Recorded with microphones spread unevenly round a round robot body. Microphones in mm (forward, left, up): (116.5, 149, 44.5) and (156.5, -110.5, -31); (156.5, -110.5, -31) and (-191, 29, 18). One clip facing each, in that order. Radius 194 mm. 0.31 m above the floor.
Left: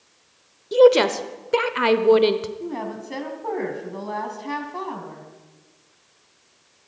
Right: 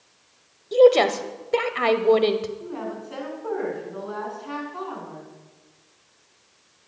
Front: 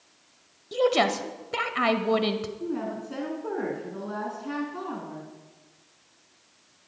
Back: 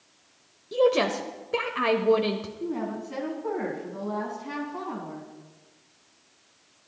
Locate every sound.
0.7 s a woman speaking: straight ahead, 0.9 m
2.6 s a woman speaking: 70° left, 3 m